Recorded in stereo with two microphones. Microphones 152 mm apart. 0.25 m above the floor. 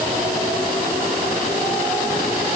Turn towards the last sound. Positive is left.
No sound to turn to.